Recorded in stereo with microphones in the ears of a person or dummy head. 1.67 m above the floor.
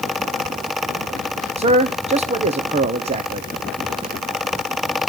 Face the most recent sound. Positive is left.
turn(degrees=-35)  # may be behind; listen again after turning